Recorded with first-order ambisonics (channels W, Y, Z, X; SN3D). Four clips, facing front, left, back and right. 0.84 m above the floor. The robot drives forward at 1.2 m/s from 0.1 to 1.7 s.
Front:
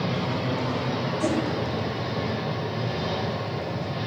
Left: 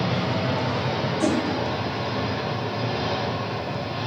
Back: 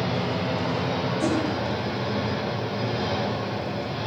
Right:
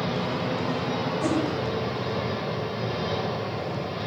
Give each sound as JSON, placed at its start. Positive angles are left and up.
{"t": 0.0, "sound": "an engine running", "azimuth_deg": 115, "distance_m": 4.5}
{"t": 1.2, "sound": "a whoosh", "azimuth_deg": 105, "distance_m": 3.5}